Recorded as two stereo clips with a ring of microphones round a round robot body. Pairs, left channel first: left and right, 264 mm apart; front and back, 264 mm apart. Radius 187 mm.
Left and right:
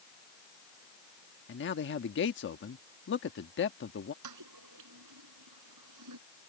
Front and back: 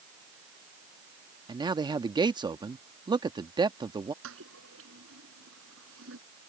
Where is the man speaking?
110° left.